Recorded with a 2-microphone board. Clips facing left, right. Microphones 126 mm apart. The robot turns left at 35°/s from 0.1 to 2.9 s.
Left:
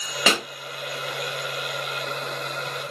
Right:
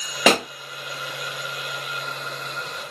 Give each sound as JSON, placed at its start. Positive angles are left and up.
{"t": 0.3, "sound": "a pop", "side_deg": -50, "distance_m": 0.6}